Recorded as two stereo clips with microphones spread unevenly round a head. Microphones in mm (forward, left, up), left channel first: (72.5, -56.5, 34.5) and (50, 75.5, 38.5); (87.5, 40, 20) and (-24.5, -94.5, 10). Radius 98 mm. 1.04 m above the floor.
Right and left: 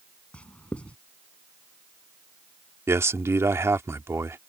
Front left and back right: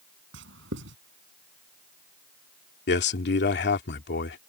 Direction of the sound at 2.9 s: 30° left.